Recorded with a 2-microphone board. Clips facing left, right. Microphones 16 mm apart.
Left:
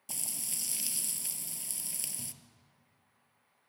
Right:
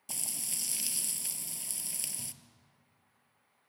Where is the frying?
5° right (ahead or behind), 0.9 m.